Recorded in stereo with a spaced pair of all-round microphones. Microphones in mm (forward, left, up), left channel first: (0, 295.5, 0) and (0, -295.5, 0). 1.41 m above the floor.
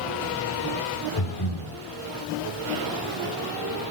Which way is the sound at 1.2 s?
55° left (ahead or behind).